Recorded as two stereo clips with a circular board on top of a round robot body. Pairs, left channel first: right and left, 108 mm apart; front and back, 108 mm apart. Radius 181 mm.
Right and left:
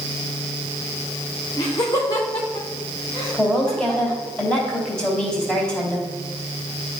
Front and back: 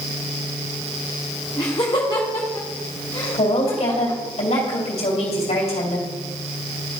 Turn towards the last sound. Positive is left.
turn(degrees=-10)